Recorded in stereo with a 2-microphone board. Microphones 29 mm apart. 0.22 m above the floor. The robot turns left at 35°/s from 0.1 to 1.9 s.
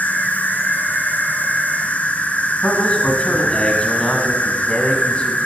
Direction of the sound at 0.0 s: 115° left.